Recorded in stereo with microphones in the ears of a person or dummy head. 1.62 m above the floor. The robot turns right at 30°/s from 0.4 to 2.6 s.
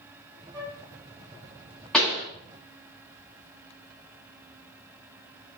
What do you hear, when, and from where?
0.5 s a flute: 20° right (ahead or behind), 1.6 m; by 0.8 s 25° right (ahead or behind), 1.6 m
1.9 s a pop: centre (ahead or behind), 1.0 m; by 2.2 s 5° right (ahead or behind), 1.0 m